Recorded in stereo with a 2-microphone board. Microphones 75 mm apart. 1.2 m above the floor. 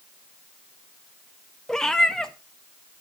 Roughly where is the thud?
I don't hear a thud.